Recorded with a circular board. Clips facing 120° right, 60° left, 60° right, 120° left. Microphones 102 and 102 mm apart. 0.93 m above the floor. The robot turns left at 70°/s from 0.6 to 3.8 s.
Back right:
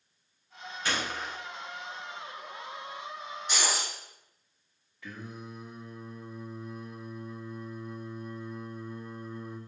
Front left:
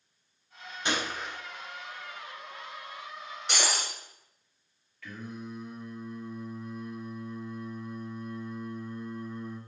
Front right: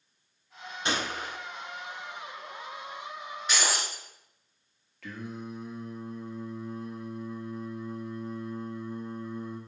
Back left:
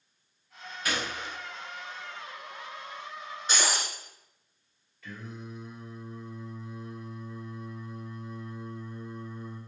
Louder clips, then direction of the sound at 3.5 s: Front left 1 dB, even; 65° left.